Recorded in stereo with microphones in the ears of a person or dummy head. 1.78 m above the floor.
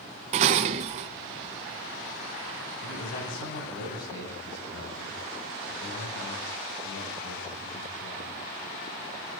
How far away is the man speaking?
About 9 m.